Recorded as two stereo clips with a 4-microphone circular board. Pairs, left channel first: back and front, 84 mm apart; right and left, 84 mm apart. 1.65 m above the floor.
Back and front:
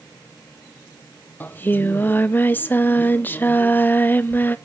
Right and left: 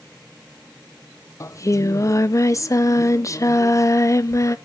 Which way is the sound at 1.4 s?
120° right.